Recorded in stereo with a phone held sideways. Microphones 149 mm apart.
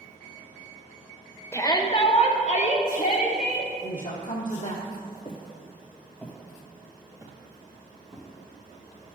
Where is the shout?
15° left (ahead or behind), 0.9 m; by 3.7 s 70° left (ahead or behind), 2.5 m.